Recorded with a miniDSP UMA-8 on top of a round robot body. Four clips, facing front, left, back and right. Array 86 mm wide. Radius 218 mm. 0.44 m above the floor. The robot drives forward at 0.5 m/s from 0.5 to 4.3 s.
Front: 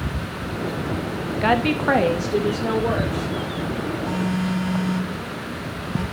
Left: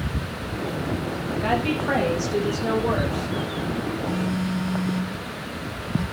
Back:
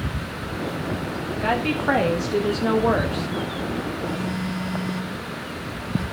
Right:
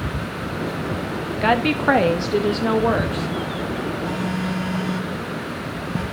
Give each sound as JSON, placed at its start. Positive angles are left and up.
{"t": 1.4, "sound": "a woman speaking", "azimuth_deg": -55, "distance_m": 1.2}
{"t": 4.0, "sound": "a phone buzzing", "azimuth_deg": -70, "distance_m": 4.0}